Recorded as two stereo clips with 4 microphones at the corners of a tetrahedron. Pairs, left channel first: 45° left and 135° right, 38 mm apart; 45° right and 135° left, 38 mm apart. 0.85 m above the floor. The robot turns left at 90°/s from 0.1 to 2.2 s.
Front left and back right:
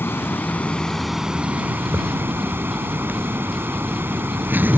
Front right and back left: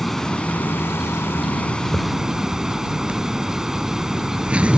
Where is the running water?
40° left; by 4.8 s 150° right.